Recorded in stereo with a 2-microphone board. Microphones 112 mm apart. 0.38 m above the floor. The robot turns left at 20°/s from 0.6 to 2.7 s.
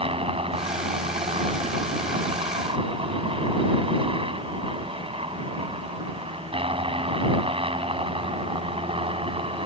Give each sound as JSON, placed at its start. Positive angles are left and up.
{"t": 0.0, "sound": "a helicopter", "azimuth_deg": -70}